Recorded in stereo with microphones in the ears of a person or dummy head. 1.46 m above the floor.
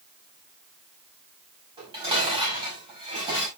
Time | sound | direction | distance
1.8 | dishes clattering | 25° right (ahead or behind) | 5.5 m